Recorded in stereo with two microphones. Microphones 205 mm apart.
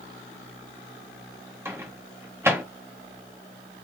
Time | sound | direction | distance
1.6 | a microwave | 10° right (ahead or behind) | 0.9 m